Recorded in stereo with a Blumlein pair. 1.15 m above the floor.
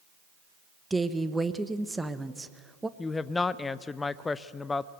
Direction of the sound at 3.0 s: 15° left.